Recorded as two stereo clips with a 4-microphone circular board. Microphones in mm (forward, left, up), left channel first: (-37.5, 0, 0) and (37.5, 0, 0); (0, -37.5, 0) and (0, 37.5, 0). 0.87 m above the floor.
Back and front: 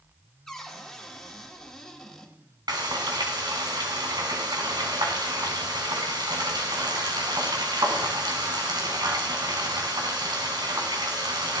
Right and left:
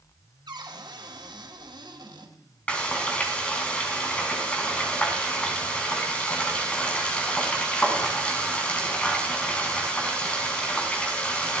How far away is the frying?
About 4 m.